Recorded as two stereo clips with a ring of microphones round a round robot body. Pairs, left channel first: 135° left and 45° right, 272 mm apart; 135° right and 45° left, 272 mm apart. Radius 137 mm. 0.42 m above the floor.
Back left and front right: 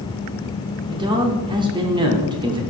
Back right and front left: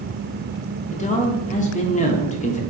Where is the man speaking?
105° right, 0.8 m.